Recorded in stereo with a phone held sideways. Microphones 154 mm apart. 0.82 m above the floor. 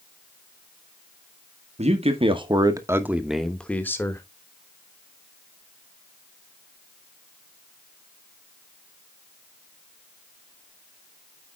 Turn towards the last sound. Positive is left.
turn(degrees=20)  # may be behind; listen again after turning